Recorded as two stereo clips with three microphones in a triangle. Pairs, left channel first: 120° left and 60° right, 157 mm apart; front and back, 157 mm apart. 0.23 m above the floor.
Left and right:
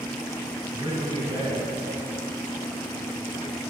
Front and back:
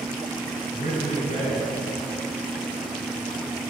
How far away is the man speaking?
About 2 m.